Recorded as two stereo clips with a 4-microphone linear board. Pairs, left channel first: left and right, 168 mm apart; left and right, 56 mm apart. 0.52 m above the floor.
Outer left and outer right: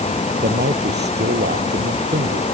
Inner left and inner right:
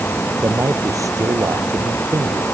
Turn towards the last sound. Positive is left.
turn(degrees=-85)